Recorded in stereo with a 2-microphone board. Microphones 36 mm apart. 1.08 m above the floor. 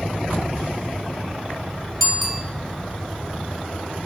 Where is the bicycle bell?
5° left (ahead or behind), 3 m.